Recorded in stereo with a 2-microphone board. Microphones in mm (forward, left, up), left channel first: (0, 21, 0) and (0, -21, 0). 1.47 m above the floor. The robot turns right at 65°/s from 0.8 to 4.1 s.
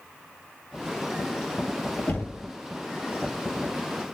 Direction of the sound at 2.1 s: 45° left (ahead or behind).